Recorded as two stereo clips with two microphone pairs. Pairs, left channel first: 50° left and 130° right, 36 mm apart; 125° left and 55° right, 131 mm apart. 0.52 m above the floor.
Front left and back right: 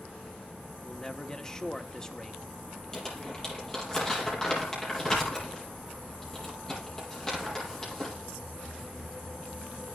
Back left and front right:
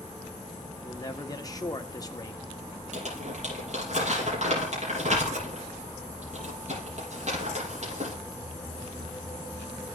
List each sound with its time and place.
0.8 s a man speaking: 105° left, 1.0 m
2.9 s crumpling: 25° right, 6.5 m